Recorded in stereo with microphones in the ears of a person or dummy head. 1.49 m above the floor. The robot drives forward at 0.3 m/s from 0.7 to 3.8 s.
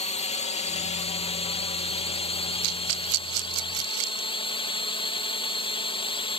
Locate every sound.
0.0 s a drone: 35° left (ahead or behind); by 6.4 s 25° left (ahead or behind)
2.6 s a rattle: 75° right (ahead or behind); by 4.3 s 65° right (ahead or behind)